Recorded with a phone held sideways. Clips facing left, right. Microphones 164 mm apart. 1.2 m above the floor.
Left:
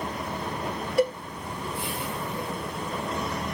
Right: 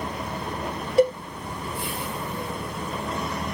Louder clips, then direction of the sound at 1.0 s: Right 5 dB; 25° right (ahead or behind).